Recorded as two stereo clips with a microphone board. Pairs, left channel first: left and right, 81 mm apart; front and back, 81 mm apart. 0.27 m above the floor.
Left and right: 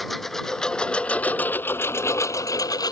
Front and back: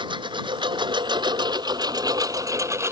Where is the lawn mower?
Straight behind; by 2.9 s 125° left.